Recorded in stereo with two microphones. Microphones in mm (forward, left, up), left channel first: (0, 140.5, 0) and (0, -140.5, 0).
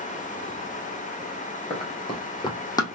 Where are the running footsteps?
20° left (ahead or behind), 2 m; by 3.0 s 10° left (ahead or behind), 1.4 m.